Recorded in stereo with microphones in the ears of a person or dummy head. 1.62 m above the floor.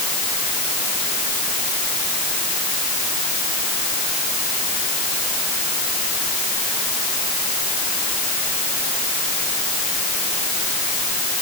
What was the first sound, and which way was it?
Only background noise.